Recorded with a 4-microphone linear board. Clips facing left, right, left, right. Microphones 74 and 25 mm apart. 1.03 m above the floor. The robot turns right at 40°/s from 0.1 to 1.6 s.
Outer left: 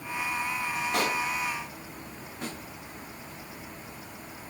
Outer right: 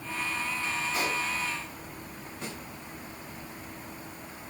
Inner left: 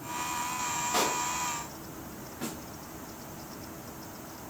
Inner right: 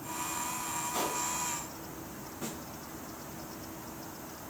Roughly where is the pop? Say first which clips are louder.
Outer left 4 dB, inner left 6 dB; left.